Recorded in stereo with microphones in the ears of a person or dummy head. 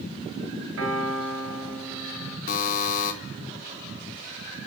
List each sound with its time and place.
0.8 s a piano: 75° right (ahead or behind), 7.5 m
2.5 s a buzzer: 50° left (ahead or behind), 3.5 m